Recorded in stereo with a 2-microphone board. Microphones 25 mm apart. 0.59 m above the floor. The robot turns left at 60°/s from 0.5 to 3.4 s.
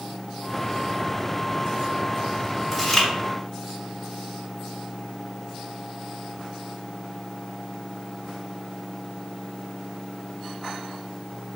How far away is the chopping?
I don't hear chopping.